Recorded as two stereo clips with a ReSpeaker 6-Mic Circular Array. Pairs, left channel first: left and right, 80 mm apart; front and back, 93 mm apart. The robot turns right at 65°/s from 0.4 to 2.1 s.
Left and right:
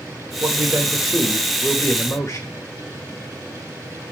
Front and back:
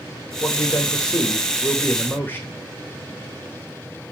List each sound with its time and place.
0.4 s a man speaking: 50° right, 1.6 m; by 2.5 s 60° left, 1.6 m